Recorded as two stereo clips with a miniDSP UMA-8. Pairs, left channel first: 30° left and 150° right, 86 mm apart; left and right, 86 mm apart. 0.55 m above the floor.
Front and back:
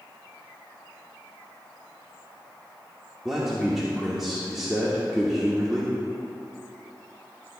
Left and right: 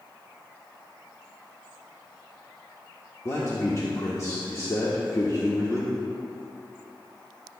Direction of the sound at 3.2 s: 125° left.